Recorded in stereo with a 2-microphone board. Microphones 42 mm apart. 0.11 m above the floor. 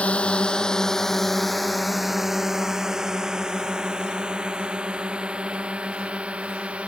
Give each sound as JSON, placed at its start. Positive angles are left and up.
{"t": 0.0, "sound": "a drone", "side_deg": 30}